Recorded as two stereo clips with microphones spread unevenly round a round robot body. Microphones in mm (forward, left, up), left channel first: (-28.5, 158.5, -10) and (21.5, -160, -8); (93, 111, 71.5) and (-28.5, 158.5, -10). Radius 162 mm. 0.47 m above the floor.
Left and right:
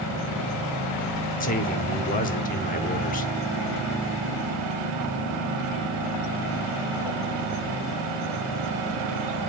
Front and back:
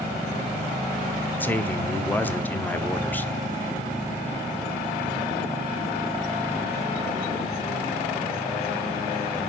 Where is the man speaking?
120° left, 0.8 m.